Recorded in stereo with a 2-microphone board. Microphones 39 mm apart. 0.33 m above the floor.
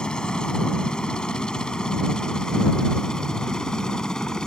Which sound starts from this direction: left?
A helicopter, at 0.0 s.